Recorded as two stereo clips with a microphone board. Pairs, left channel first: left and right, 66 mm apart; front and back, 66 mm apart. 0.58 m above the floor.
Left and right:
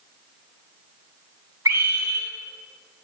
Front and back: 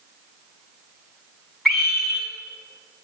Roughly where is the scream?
Right.